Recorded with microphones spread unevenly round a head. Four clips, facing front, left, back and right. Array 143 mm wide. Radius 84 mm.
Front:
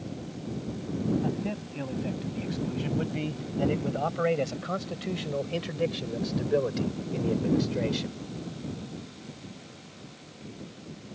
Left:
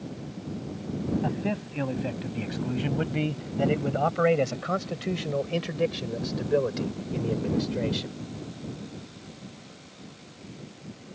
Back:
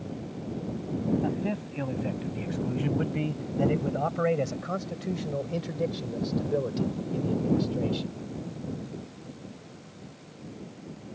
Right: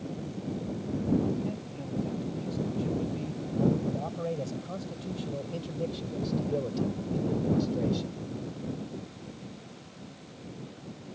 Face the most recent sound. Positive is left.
turn(degrees=40)